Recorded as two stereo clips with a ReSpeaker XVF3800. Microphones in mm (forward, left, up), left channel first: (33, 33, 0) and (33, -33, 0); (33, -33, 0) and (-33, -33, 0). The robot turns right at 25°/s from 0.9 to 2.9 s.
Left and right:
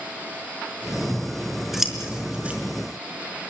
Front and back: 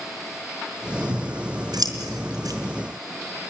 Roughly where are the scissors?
Behind.